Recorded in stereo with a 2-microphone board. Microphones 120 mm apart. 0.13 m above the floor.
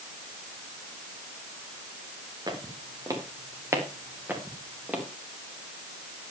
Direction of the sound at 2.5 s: 35° right (ahead or behind).